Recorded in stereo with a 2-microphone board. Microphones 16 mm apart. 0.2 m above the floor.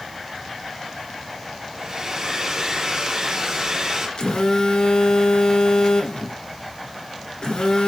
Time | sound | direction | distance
1.7 | a hair dryer | 45° right (ahead or behind) | 4 m
4.2 | a phone buzzing | 55° left (ahead or behind) | 1.8 m